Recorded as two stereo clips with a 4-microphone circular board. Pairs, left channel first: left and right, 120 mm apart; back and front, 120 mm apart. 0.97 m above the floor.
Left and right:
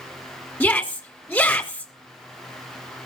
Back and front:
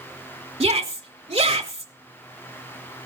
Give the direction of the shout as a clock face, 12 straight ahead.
11 o'clock.